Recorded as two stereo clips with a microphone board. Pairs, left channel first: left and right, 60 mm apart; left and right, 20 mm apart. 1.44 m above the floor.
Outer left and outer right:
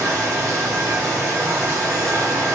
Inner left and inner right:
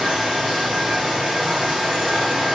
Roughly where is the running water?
Right.